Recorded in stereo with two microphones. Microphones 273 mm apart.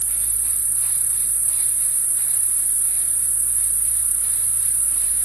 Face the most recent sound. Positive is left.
turn(degrees=50)  # may be behind; listen again after turning